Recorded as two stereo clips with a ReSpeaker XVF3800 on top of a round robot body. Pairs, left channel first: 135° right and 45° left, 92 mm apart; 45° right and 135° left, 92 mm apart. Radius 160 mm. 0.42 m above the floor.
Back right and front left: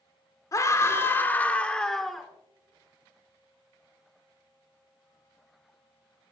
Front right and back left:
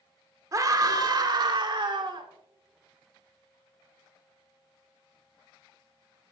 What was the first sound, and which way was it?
A scream, straight behind.